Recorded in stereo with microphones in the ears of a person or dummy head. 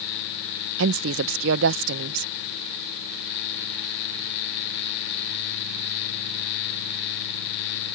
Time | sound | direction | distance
0.8 | a woman speaking | 75° right (ahead or behind) | ?